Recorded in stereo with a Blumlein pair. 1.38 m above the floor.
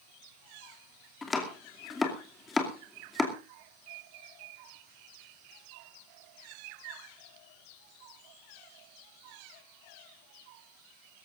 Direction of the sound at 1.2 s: 15° left.